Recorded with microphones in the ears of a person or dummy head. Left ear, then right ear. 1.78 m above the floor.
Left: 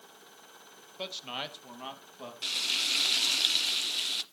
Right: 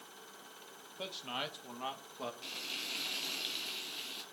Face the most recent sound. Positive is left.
turn(degrees=45)  # may be behind; listen again after turning